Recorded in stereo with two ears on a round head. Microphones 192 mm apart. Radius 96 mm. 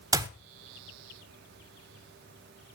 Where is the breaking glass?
No breaking glass in this recording.